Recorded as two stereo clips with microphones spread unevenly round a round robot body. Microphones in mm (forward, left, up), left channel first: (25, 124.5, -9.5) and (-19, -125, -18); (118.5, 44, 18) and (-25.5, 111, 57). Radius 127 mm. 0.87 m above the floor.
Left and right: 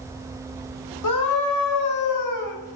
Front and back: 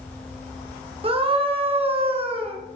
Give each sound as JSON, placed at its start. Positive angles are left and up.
{"t": 1.0, "sound": "a scream", "azimuth_deg": 95, "distance_m": 2.5}